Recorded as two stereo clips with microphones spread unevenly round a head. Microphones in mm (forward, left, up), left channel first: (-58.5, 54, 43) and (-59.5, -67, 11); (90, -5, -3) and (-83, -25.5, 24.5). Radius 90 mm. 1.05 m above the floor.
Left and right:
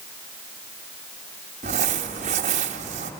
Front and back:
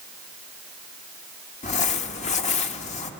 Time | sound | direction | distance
1.6 | crumpling | 45° right | 1.0 m